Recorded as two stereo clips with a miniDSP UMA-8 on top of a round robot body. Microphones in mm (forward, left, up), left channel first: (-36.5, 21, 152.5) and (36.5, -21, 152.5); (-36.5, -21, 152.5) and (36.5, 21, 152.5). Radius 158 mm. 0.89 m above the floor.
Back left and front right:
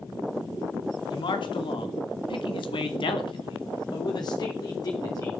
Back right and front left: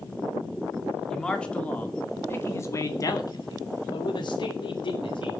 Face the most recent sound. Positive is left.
turn(degrees=-160)